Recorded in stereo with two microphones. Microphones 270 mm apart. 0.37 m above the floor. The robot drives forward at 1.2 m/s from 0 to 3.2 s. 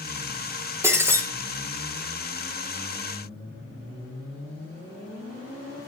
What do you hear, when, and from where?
0.8 s breaking glass: 10° right (ahead or behind), 3.5 m